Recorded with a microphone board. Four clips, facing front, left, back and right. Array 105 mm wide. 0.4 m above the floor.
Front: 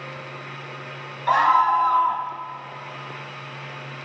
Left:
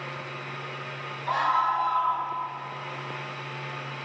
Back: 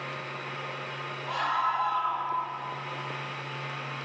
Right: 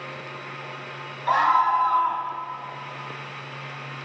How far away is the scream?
About 3 m.